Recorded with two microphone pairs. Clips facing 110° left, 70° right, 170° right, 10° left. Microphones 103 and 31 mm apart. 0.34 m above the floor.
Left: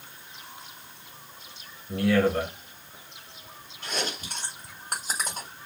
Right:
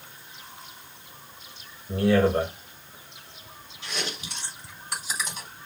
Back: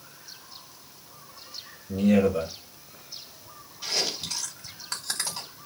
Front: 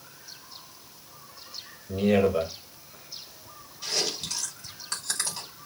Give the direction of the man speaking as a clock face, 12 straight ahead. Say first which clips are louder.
Right 2 dB, back 1 dB; 1 o'clock.